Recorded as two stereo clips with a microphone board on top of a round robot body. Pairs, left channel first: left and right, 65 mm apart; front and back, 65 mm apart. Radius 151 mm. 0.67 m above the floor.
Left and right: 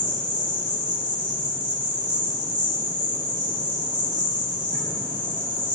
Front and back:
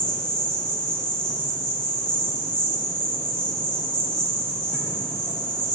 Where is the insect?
75° right, 2.5 m.